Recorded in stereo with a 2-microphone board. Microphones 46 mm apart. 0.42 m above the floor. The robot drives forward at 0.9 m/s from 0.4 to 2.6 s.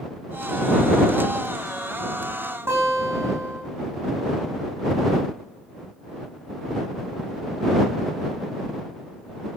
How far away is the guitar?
About 9 m.